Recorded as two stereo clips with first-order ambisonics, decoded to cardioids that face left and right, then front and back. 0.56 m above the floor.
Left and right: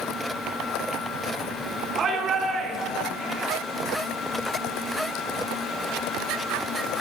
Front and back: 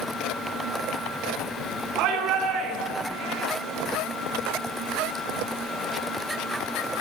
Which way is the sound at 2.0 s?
150° right.